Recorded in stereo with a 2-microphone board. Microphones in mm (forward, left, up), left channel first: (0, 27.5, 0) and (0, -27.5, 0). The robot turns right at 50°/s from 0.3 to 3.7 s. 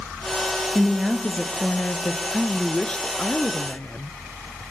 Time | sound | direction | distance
0.8 | a woman speaking | 20° right | 1.9 m
2.3 | a woman speaking | straight ahead | 1.2 m